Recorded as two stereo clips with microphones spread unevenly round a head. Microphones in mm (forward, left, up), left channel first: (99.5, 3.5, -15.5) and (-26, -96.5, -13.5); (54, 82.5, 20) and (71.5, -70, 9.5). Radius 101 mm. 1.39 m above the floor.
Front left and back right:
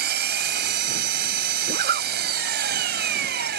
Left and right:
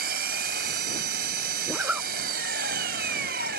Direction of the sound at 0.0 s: 130° right.